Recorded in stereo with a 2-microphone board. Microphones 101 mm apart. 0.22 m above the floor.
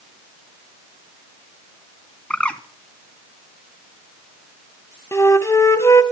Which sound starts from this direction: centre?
A bird, at 2.3 s.